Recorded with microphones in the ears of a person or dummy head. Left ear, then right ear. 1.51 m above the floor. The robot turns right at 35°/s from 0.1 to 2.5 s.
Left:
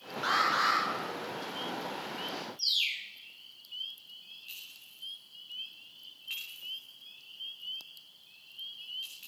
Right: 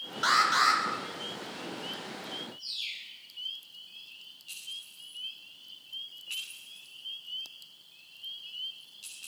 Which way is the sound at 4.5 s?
25° left (ahead or behind).